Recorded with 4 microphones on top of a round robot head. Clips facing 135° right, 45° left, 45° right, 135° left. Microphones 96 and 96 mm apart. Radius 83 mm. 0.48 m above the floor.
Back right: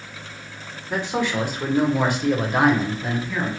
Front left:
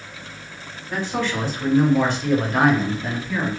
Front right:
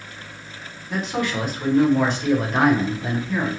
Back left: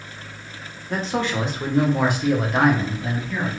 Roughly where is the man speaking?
Behind.